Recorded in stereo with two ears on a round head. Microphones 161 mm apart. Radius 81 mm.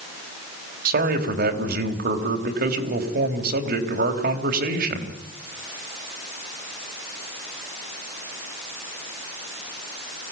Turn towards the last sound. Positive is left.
turn(degrees=-55)  # may be behind; listen again after turning